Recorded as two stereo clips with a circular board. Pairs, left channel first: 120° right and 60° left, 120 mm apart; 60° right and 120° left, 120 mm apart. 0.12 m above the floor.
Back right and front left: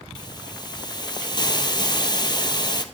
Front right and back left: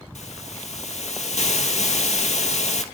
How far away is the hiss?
About 0.6 m.